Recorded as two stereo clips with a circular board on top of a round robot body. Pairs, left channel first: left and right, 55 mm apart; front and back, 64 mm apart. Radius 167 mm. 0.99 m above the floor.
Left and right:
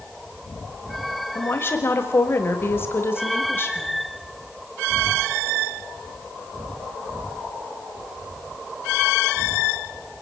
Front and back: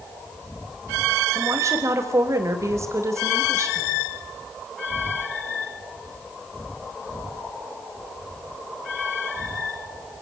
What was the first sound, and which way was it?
A woman speaking, 140° left.